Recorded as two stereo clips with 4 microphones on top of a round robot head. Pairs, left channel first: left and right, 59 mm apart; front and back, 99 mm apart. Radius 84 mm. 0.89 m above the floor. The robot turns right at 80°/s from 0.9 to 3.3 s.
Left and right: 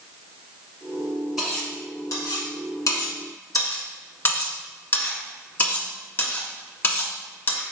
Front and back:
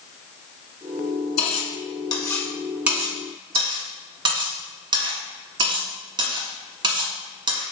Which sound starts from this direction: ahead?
Cutlery clinking, at 1.4 s.